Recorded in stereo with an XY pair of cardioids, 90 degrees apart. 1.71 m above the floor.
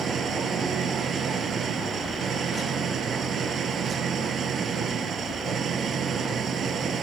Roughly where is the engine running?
Ahead right.